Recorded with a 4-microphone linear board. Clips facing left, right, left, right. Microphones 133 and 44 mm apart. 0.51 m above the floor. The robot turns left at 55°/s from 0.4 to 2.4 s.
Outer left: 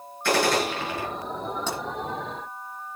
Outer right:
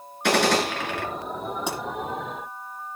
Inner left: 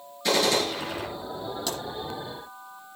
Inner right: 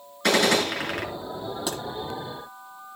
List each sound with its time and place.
0.2 s a gunshot: 75° right, 6 m; by 1.1 s 110° right, 6 m
1.7 s a pop: 15° right (ahead or behind), 9.5 m; by 1.8 s 5° right (ahead or behind), 9.5 m